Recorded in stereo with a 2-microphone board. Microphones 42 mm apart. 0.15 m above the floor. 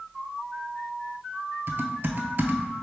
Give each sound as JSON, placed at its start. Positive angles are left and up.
{"t": 1.7, "sound": "typing on a keyboard", "side_deg": -50, "distance_m": 0.5}